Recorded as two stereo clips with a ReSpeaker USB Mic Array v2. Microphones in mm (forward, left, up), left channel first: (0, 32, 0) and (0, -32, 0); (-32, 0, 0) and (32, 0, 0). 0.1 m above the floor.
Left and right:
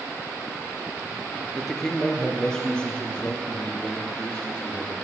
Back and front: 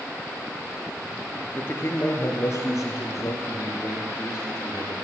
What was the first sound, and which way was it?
A man speaking, 175° left.